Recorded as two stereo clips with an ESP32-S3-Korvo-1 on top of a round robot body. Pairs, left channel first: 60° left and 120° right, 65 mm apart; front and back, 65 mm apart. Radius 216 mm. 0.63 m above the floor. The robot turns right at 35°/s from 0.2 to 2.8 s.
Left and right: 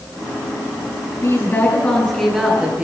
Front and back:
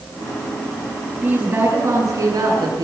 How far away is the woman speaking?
About 8 m.